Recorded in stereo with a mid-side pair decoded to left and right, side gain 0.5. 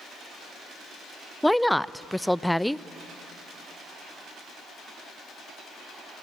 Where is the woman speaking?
5° left, 0.5 m.